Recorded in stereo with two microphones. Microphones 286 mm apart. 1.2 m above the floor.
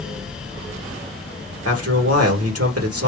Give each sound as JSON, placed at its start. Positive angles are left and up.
{"t": 1.6, "sound": "a man speaking", "side_deg": -60, "distance_m": 1.8}